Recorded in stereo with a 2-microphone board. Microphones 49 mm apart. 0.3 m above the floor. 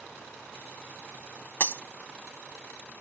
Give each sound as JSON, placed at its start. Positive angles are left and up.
{"t": 1.6, "sound": "breaking glass", "side_deg": 45}